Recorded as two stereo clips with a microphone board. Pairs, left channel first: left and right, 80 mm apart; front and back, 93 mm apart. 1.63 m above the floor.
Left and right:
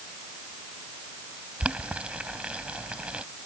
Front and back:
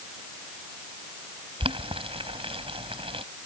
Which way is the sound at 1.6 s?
165° right.